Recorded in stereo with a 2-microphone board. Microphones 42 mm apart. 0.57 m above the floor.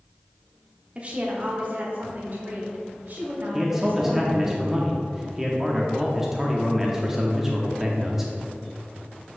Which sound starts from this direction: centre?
A man speaking, at 3.5 s.